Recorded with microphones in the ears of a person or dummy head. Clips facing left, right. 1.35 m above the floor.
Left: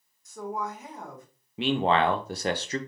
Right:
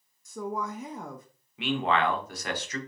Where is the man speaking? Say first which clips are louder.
Left 3 dB; 25° left (ahead or behind), 0.6 m.